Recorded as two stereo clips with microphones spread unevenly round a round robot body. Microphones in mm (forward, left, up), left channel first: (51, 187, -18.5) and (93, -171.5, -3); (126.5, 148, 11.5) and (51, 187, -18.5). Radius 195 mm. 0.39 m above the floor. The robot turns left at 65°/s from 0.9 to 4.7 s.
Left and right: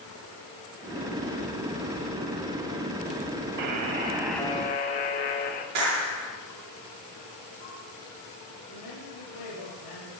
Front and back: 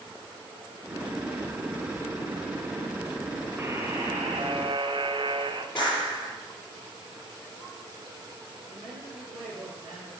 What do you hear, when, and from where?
3.6 s a buzzer: 125° right, 0.8 m; by 5.7 s 160° left, 0.8 m
5.8 s a clap: 115° right, 5 m
8.7 s a man speaking: 140° left, 6 m